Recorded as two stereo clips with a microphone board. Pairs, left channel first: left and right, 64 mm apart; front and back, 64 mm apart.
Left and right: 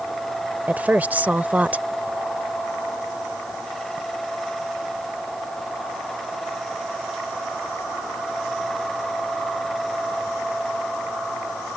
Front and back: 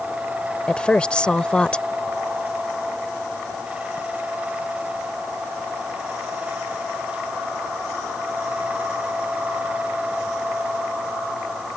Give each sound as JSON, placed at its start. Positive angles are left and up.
{"t": 0.7, "sound": "a woman speaking", "azimuth_deg": -55}